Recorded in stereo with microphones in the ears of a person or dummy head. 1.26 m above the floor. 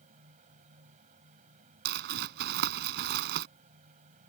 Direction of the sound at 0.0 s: 40° right (ahead or behind).